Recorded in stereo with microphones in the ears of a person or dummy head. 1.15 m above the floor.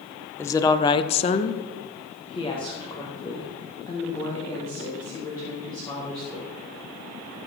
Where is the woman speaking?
15° left (ahead or behind), 0.9 m.